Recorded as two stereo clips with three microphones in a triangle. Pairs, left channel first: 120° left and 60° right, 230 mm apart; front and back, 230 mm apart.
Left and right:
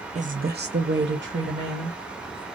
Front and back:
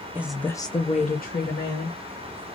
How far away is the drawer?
No drawer in this recording.